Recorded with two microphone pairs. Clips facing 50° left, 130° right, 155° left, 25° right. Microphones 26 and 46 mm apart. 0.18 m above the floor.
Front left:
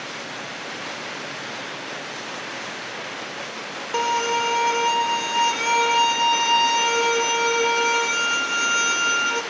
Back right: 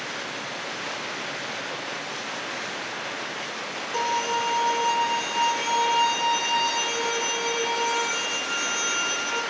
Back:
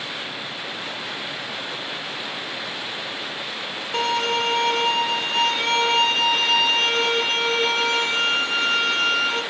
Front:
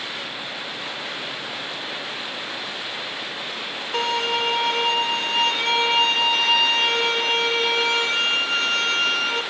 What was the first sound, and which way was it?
A violin, 60° left.